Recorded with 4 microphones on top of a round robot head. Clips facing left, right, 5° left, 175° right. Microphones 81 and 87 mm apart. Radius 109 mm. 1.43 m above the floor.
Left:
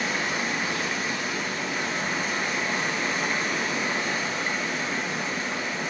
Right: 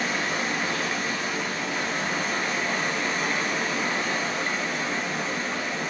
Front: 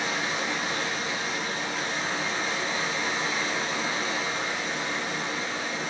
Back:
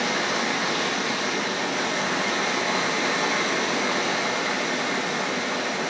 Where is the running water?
Straight behind, 1.2 m.